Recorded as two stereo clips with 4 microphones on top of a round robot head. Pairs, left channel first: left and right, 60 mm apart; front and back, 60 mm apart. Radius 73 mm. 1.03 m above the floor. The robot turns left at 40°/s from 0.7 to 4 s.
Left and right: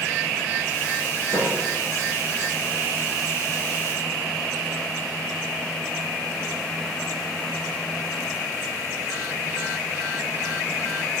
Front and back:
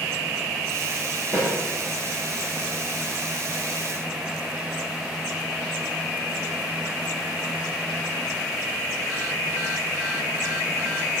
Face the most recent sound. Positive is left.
turn(degrees=135)